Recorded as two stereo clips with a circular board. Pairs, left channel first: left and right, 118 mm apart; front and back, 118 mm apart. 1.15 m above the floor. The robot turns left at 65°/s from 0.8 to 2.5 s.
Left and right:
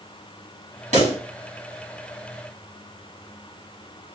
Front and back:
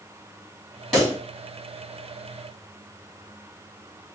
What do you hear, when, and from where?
0.9 s a pop: 90° right, 2 m; by 1.2 s 105° right, 2 m